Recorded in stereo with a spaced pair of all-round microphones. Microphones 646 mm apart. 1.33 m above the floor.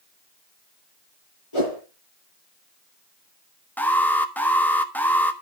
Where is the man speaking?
No man speaking in this recording.